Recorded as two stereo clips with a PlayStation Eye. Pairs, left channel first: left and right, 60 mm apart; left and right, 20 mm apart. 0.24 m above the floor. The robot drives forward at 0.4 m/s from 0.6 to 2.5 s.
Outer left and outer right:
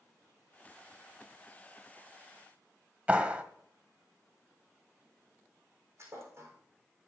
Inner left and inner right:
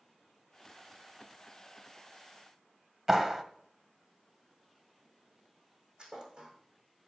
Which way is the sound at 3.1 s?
20° right (ahead or behind).